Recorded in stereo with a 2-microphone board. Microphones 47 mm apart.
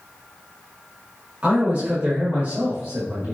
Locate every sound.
1.4 s a man speaking: 30° right (ahead or behind), 1.1 m; by 3.4 s 50° right (ahead or behind), 1.3 m